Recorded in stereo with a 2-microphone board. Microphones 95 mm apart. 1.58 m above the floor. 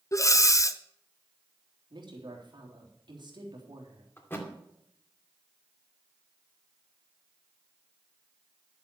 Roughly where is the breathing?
Left.